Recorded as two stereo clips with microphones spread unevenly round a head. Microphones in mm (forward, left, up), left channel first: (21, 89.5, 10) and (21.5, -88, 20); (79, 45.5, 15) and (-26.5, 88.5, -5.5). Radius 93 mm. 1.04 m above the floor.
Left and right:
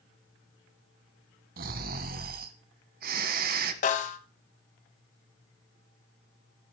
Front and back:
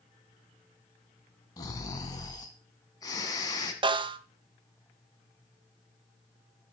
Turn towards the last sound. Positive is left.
turn(degrees=125)